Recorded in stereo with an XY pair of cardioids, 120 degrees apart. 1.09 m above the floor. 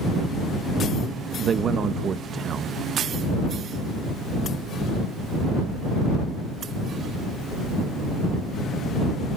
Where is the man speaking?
45° right.